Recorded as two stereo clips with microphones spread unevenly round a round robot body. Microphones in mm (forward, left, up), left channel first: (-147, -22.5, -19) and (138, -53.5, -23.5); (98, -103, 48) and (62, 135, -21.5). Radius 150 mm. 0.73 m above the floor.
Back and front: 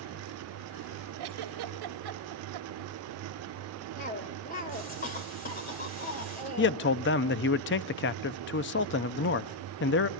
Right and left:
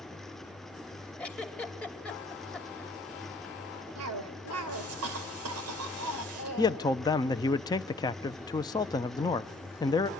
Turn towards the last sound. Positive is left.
turn(degrees=-170)